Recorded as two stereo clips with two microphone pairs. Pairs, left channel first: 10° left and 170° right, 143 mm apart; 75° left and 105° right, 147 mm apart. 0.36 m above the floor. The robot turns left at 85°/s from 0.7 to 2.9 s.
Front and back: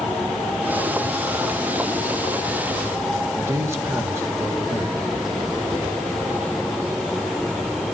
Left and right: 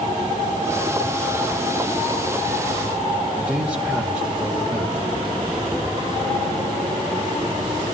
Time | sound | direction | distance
3.4 | a man speaking | 165° right | 1.4 m